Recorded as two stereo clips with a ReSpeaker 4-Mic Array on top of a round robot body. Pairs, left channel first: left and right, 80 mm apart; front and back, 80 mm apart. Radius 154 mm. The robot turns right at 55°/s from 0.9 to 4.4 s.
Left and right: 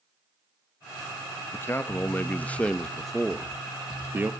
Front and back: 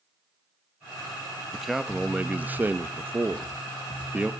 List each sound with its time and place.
1.5 s a man speaking: 90° left, 1.1 m; by 4.3 s 120° right, 1.1 m